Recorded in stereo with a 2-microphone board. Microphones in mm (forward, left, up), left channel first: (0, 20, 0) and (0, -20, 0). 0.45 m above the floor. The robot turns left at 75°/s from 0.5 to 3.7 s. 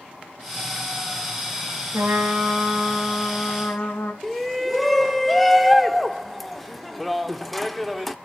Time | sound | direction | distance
1.9 | a trumpet | 90° right | 3 m
4.2 | a shout | 5° left (ahead or behind) | 0.8 m